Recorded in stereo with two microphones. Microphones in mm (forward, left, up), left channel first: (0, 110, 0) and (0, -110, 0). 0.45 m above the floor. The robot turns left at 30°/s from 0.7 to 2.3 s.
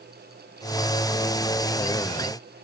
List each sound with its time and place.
Only background noise.